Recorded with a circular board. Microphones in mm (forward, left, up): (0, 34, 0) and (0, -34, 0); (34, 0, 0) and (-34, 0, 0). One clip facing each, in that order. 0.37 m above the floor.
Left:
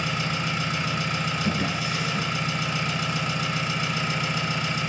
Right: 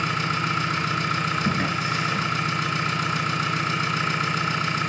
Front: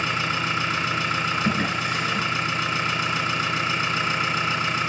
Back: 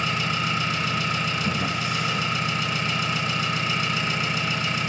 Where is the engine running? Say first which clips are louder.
Right 3 dB, front 1 dB; 60° right, 3 m.